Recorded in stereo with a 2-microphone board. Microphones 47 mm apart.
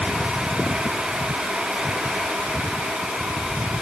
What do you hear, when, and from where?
Only background noise.